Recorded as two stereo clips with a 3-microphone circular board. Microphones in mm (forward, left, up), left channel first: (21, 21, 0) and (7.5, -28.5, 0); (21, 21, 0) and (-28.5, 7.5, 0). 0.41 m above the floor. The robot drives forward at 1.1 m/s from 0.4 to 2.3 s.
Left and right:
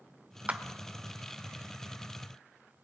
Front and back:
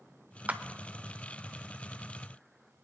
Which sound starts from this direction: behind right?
A clap, at 0.5 s.